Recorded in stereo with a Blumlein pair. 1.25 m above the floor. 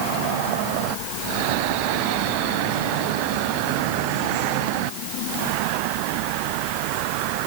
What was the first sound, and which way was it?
Only background noise.